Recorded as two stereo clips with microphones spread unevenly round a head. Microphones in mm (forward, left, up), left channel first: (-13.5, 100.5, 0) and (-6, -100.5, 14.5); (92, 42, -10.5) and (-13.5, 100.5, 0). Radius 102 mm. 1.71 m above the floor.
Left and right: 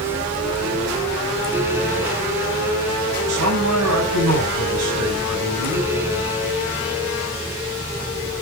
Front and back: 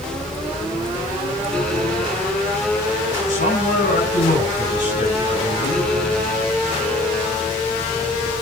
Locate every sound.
3.3 s a man speaking: 80° right, 8.5 m